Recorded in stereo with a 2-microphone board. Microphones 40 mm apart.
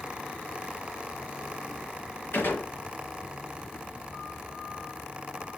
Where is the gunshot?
65° left (ahead or behind), 4 m.